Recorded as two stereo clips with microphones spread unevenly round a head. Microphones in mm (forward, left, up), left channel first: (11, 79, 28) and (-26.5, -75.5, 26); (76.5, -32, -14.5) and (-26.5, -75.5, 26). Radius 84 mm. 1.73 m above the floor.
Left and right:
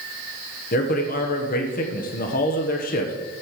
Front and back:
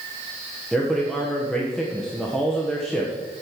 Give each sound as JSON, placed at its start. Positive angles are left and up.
{"t": 0.7, "sound": "a man speaking", "azimuth_deg": 115, "distance_m": 1.4}